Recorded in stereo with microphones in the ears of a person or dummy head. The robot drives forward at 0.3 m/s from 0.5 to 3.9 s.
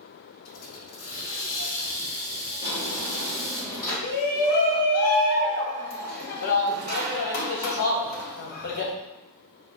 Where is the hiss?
85° left, 0.6 m; by 3.6 s 30° left (ahead or behind), 1.1 m.